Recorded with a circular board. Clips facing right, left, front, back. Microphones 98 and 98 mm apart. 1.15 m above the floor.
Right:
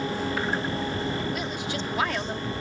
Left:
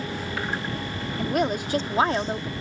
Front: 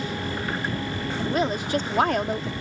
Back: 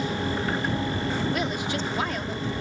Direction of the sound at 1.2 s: 60° left.